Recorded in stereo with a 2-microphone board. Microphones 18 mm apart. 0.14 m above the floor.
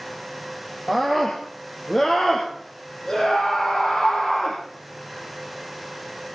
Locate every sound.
0.9 s a scream: 20° left (ahead or behind), 4.5 m; by 4.6 s 60° left (ahead or behind), 6 m